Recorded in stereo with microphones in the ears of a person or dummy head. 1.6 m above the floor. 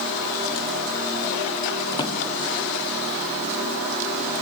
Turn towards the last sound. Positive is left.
turn(degrees=25)  # may be behind; listen again after turning